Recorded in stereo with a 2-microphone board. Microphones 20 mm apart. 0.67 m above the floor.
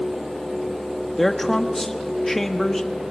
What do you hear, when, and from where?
1.1 s a man speaking: 15° left (ahead or behind), 1.1 m